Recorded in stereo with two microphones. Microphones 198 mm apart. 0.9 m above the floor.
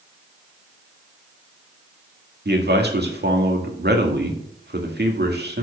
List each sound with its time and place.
2.5 s a man speaking: 55° right (ahead or behind), 1.9 m